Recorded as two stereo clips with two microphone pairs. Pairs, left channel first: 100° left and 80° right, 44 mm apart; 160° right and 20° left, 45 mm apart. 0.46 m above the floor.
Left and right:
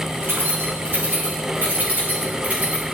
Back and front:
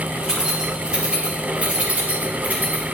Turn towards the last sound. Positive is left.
turn(degrees=-25)